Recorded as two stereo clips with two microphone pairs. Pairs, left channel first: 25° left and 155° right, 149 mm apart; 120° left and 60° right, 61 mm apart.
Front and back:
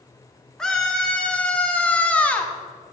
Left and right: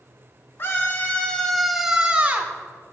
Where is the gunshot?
I don't hear a gunshot.